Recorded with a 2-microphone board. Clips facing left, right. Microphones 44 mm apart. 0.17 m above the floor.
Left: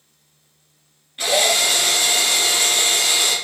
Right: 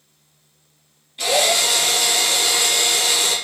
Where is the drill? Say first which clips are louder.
Even; 30° left (ahead or behind), 2 m.